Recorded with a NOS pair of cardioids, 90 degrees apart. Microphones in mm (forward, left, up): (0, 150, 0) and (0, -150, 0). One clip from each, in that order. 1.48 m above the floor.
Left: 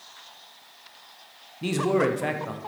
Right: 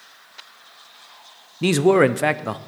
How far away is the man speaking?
About 0.6 m.